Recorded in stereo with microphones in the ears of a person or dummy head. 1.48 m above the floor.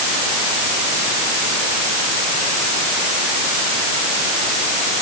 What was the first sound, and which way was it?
Only background noise.